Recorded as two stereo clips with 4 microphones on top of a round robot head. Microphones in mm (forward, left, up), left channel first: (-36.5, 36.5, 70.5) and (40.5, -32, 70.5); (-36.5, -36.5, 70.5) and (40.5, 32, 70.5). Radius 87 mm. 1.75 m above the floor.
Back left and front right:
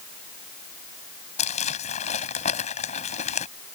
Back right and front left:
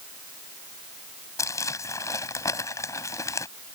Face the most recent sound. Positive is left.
turn(degrees=160)